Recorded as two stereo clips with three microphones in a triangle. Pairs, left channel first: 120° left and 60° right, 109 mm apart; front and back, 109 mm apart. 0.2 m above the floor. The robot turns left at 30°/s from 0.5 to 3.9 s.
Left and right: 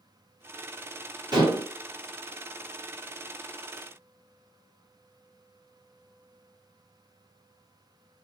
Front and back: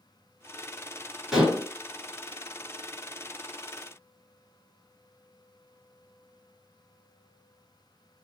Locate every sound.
1.3 s dishes clattering: 95° right, 1.5 m; by 1.7 s 105° right, 1.5 m